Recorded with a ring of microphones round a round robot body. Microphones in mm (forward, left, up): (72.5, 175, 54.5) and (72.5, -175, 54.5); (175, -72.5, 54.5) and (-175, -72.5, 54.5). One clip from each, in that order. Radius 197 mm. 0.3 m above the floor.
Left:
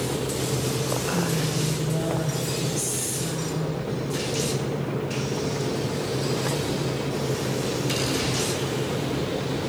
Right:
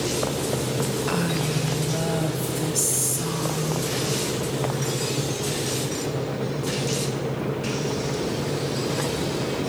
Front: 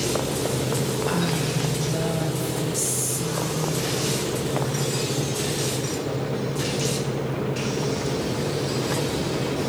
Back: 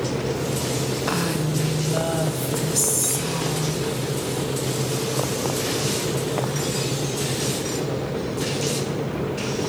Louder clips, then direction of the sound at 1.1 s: Right 1 dB, back 1 dB; 165° right.